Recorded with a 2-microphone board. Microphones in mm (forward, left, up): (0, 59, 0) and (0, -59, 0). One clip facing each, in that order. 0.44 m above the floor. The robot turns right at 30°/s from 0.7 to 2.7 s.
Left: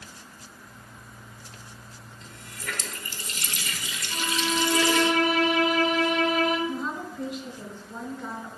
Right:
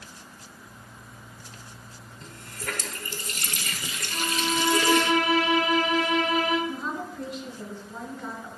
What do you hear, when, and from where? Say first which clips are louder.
2.2 s a running tap: right 3 dB; 50° right (ahead or behind), 0.8 m
4.1 s a violin: even; 50° left (ahead or behind), 1.5 m
6.7 s a woman speaking: left 1 dB; 5° left (ahead or behind), 2.5 m